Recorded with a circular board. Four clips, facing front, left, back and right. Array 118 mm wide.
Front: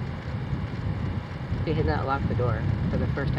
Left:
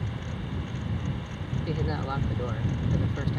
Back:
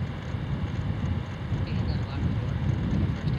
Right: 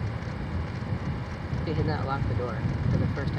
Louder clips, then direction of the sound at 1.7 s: Right 2 dB, front 8 dB; 10° right.